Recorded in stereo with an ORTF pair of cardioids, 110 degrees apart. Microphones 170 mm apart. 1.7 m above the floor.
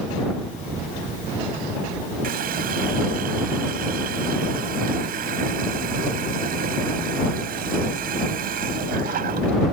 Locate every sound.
2.2 s a running tap: 60° right